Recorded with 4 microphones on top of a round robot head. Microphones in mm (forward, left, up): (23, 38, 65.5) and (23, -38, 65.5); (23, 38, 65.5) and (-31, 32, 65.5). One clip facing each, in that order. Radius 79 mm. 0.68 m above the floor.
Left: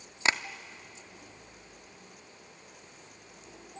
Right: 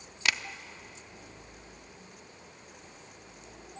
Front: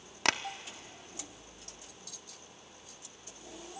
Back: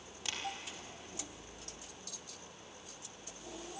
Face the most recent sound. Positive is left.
turn(degrees=30)